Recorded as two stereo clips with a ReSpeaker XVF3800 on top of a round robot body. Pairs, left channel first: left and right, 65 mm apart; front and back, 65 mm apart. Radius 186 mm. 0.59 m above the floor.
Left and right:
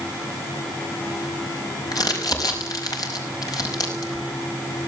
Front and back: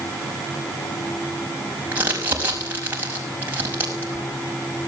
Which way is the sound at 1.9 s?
120° left.